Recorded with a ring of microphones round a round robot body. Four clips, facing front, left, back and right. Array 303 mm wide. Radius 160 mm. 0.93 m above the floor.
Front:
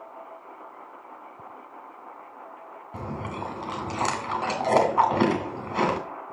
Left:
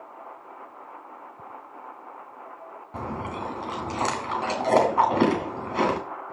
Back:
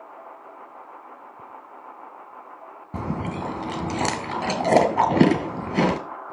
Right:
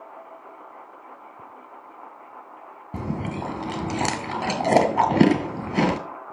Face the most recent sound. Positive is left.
turn(degrees=-135)